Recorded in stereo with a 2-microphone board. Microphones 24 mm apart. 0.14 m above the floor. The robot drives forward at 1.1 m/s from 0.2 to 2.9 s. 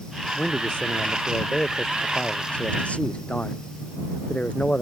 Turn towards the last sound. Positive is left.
turn(degrees=55)  # may be behind; listen again after turning